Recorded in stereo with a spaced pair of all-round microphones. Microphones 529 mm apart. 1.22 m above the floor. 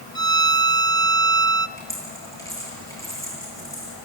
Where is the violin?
25° right (ahead or behind), 0.5 m.